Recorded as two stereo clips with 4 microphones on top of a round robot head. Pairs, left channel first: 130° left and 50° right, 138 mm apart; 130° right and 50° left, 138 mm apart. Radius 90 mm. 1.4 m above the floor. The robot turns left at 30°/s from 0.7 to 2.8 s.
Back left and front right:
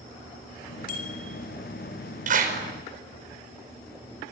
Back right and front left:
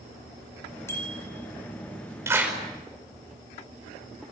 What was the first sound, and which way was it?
A bicycle bell, 160° left.